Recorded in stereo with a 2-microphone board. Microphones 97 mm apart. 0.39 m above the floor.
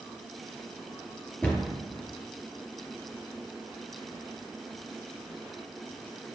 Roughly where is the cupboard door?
Centre.